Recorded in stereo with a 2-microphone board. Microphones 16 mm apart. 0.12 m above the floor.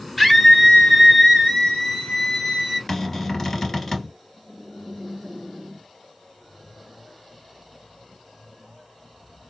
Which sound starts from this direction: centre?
A scream, at 0.2 s.